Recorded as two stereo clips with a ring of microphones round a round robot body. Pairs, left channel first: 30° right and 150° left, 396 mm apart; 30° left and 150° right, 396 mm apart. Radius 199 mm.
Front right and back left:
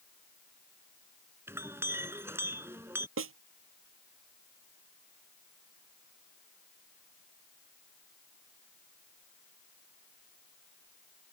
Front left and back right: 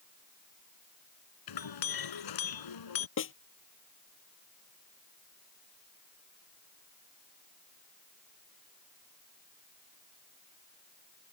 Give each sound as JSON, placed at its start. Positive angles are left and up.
{"t": 1.5, "sound": "a clink", "azimuth_deg": 65}
{"t": 3.2, "sound": "a snare drum", "azimuth_deg": 90}